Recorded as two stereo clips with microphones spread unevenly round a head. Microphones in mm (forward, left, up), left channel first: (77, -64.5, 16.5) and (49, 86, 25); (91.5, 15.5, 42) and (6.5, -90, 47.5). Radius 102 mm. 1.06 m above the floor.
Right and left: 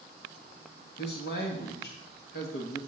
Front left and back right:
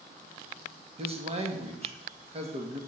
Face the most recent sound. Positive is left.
turn(degrees=-85)